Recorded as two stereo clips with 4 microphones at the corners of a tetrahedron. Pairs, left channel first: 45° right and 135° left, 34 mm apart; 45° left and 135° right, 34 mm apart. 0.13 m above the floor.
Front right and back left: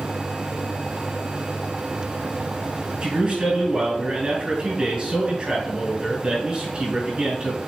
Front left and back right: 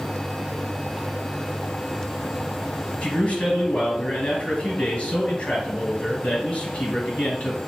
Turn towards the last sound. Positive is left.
turn(degrees=80)